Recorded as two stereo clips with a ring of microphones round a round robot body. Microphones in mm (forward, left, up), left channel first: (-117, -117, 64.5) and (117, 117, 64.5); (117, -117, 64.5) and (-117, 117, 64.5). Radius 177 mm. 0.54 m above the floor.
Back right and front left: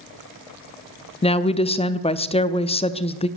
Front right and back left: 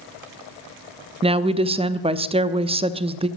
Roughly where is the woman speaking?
Behind.